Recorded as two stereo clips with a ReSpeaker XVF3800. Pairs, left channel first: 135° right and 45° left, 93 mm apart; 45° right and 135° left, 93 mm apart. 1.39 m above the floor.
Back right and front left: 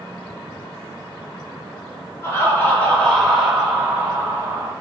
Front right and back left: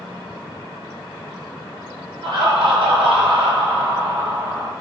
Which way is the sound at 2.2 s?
170° left.